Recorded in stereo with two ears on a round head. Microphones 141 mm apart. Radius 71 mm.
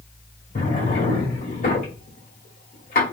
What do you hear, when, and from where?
0.6 s a drawer: 50° left (ahead or behind), 2 m